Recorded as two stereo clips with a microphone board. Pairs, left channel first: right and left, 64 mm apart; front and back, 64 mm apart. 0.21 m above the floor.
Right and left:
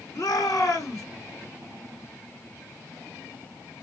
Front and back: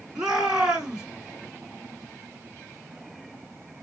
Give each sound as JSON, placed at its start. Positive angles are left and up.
{"t": 0.1, "sound": "a shout", "azimuth_deg": -105, "distance_m": 3.0}